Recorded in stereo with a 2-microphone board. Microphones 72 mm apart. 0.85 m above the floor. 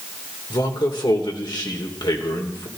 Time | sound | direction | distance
0.5 | a man speaking | 75° left (ahead or behind) | 3 m